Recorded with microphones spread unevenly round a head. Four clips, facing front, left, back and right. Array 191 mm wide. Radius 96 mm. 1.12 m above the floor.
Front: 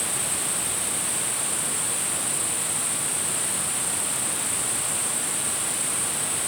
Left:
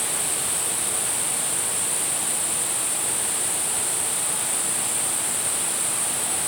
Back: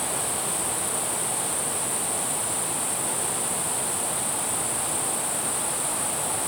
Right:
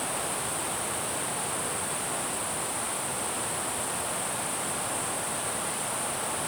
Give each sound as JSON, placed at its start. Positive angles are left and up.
{"t": 0.0, "sound": "an insect", "azimuth_deg": 165, "distance_m": 5.0}